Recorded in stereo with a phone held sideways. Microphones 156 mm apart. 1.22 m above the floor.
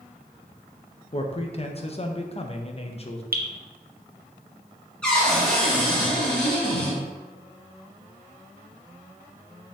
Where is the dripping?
70° right (ahead or behind), 0.7 m.